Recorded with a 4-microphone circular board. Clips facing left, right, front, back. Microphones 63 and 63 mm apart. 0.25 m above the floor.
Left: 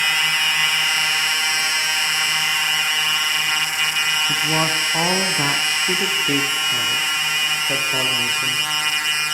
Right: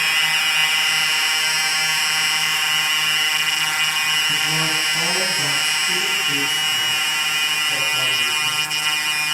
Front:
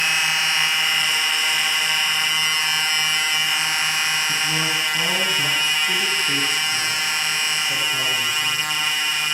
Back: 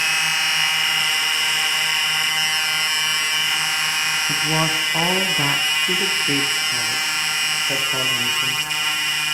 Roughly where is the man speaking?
Behind left.